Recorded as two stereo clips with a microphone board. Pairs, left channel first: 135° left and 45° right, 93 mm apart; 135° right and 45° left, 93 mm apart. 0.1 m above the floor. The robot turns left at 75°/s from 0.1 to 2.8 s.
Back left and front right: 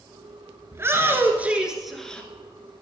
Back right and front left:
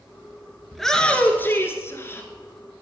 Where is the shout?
45° right, 1.6 m; by 2.3 s 165° right, 1.6 m.